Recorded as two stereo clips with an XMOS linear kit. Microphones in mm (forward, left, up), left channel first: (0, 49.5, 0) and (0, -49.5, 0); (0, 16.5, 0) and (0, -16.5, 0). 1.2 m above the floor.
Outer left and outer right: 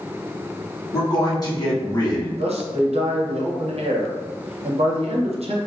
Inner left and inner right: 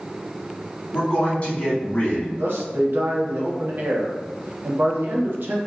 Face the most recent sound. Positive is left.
turn(degrees=-75)  # may be behind; listen again after turning